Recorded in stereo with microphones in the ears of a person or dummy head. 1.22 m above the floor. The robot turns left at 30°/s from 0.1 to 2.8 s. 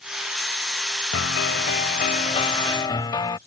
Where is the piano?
70° left; by 3.4 s 20° left.